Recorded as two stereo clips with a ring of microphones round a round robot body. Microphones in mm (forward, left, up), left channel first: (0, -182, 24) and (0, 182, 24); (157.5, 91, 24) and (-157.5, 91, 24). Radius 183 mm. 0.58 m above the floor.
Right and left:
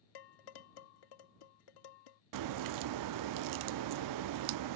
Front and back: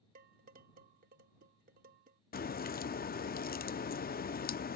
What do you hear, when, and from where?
0.1 s dishes clattering: 115° right
2.3 s a crack: 60° left